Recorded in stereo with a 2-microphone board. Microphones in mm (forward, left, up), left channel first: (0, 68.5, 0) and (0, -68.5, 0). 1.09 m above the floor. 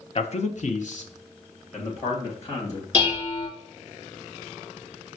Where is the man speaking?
45° left (ahead or behind), 0.5 m; by 2.8 s 50° left (ahead or behind), 2.0 m.